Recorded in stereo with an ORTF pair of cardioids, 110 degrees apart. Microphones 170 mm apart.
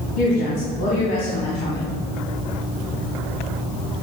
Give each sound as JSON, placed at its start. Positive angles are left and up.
{"t": 0.2, "sound": "a woman speaking", "azimuth_deg": 70, "distance_m": 2.5}